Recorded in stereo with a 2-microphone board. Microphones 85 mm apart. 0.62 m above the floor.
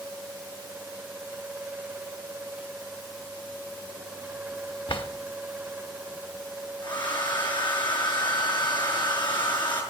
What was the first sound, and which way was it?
A drawer, 85° left.